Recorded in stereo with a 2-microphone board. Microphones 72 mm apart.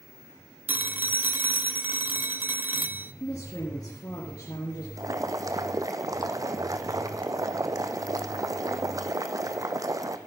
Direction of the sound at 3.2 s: 60° left (ahead or behind).